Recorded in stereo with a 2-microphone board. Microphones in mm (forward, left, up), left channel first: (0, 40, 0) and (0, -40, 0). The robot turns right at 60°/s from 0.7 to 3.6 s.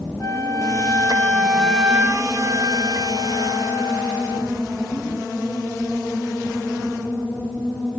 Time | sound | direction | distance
0.2 | a flute | 125° left | 1.0 m